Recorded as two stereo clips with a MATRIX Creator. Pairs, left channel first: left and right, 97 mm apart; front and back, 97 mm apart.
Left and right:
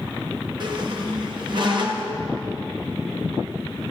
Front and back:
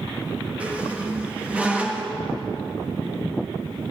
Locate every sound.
0.6 s a squeak: 105° right, 1.3 m